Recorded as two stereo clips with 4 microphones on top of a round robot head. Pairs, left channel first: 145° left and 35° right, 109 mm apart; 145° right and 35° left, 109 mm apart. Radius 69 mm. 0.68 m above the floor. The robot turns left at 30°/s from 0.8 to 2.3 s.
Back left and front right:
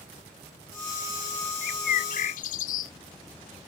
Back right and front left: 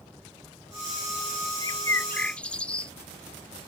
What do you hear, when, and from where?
1.6 s a bird: 155° left; by 2.9 s 135° left